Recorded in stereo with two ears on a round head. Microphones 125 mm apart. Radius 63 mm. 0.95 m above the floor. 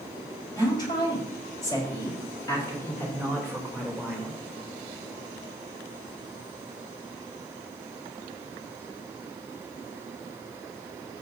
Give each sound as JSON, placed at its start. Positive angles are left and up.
{"t": 0.5, "sound": "a woman speaking", "side_deg": 30, "distance_m": 4.5}